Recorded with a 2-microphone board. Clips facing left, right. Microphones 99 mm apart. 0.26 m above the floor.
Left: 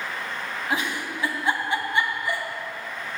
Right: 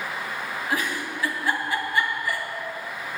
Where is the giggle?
25° left (ahead or behind), 2.5 m.